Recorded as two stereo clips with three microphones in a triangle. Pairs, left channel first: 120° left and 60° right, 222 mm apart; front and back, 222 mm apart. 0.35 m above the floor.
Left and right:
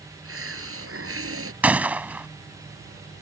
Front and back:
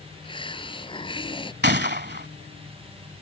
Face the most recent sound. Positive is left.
turn(degrees=-145)